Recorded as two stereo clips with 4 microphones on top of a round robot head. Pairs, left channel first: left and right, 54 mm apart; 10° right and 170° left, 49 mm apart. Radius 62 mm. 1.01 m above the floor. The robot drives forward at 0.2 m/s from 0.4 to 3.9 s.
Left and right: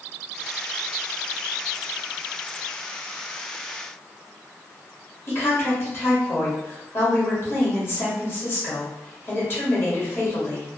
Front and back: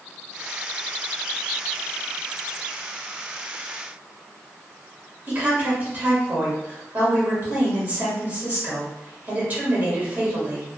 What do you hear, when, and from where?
5.3 s a woman speaking: 125° left, 1.9 m